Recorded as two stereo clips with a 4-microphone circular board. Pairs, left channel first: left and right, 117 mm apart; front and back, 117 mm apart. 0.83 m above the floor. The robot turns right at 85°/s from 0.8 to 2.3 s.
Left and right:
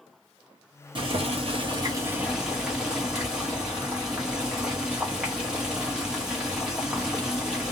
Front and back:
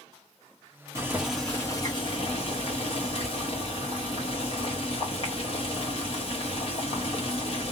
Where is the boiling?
120° right, 0.9 m; by 7.7 s 5° right, 0.9 m.